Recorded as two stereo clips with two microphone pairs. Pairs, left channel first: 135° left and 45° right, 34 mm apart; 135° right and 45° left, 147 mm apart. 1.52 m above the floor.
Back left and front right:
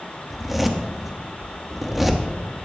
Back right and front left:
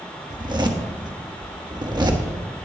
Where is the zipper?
30° left, 1.1 m.